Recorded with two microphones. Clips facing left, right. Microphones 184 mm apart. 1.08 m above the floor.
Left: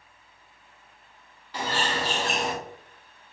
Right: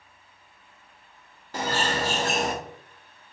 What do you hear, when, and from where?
1.5 s a bird: 45° right (ahead or behind), 1.0 m